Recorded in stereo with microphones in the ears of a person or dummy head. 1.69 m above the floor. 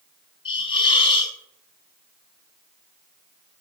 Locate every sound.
0.5 s a hiss: 35° left (ahead or behind), 3.5 m